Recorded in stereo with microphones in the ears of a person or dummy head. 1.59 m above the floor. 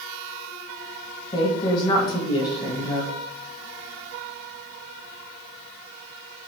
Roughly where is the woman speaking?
Left.